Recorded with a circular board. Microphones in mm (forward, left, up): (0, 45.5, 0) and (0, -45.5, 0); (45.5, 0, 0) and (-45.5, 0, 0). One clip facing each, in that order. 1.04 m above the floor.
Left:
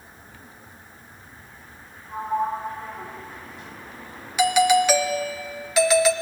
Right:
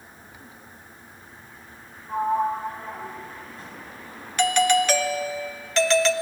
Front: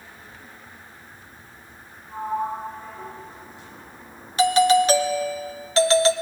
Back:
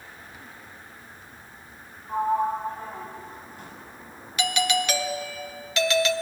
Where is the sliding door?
145° right, 4 m.